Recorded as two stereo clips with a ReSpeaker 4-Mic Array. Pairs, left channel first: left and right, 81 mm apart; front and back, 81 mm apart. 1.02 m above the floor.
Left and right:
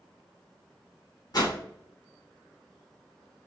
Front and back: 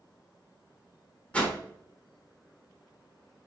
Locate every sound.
1.3 s a whoosh: 70° left, 1.0 m